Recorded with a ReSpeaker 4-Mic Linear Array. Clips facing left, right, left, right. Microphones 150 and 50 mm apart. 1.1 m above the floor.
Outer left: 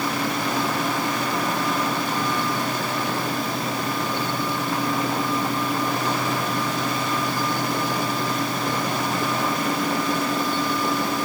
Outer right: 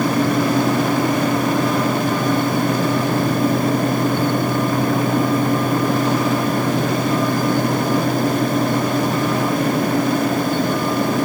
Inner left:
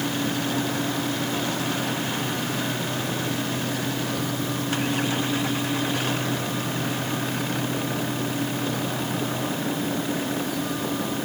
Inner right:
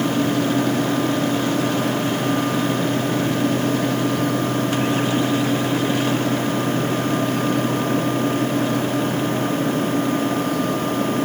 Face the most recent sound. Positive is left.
No sound to turn to.